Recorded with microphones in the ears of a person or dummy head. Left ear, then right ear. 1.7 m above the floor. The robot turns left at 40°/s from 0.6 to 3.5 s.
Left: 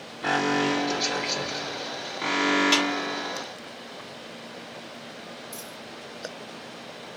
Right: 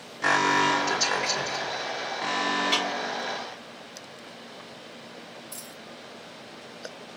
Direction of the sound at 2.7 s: 10° left (ahead or behind).